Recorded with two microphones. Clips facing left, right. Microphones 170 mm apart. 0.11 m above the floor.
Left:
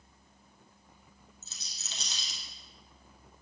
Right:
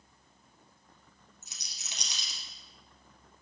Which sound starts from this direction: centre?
A rattle, at 1.4 s.